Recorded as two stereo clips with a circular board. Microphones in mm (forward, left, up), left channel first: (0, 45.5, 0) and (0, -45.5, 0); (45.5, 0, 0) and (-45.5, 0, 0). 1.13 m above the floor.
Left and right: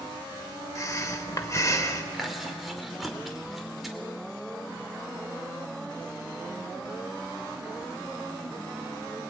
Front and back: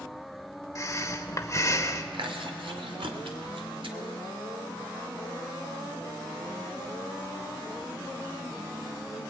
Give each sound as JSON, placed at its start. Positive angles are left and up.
{"t": 0.8, "sound": "breathing", "azimuth_deg": 45, "distance_m": 1.3}
{"t": 2.1, "sound": "chewing", "azimuth_deg": 180, "distance_m": 2.5}